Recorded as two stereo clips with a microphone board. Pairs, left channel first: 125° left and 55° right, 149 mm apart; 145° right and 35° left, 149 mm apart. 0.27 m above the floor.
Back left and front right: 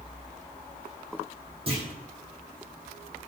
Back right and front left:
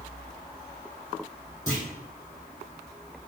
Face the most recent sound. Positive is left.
turn(degrees=-105)